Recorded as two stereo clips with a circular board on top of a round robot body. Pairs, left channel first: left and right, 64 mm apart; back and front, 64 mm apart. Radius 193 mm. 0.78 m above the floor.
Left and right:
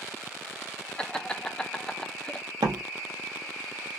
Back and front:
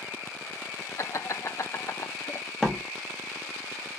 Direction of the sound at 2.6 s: 95° right.